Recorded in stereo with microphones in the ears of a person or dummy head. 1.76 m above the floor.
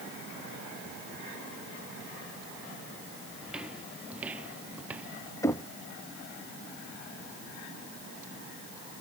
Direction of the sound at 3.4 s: 5° right (ahead or behind).